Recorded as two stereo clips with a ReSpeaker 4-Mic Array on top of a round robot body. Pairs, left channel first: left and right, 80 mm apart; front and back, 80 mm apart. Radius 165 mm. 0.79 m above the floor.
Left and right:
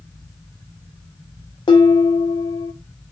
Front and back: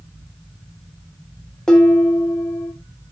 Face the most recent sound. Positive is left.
turn(degrees=80)